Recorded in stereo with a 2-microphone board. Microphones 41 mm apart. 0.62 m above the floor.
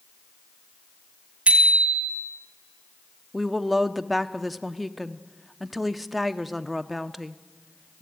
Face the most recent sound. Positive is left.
turn(degrees=0)  # may be behind; listen again after turning